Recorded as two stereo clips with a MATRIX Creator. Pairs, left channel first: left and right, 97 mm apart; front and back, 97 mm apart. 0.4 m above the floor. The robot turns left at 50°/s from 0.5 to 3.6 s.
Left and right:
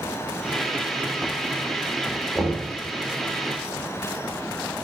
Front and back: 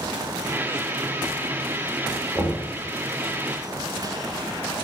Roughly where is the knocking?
Behind.